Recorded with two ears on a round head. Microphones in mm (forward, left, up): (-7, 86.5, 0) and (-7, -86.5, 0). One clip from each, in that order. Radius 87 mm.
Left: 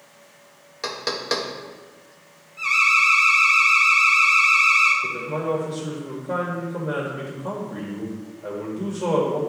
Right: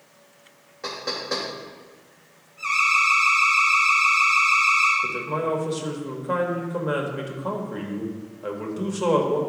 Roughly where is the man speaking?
Right.